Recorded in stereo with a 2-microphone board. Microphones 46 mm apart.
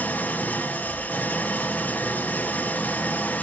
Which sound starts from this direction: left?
An engine running, at 0.0 s.